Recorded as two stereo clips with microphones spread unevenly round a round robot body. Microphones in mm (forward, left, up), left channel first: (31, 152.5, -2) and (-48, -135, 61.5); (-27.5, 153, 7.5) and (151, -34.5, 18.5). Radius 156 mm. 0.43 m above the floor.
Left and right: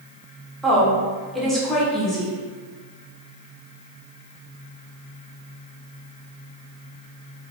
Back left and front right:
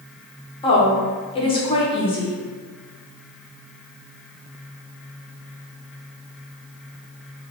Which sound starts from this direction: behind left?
A woman speaking, at 0.6 s.